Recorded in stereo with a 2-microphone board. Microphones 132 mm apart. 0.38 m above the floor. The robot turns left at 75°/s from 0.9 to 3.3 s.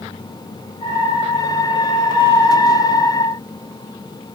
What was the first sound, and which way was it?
Only background noise.